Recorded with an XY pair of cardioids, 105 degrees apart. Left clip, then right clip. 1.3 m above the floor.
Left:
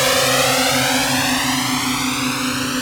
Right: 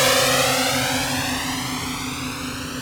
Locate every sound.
0.0 s a drone: 5° left; by 2.8 s 60° left